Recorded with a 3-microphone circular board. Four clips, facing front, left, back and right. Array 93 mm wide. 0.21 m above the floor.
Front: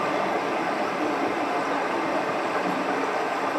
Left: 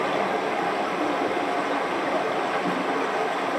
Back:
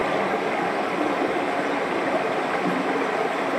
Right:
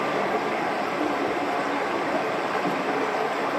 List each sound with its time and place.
0.0 s running water: 170° right, 4.5 m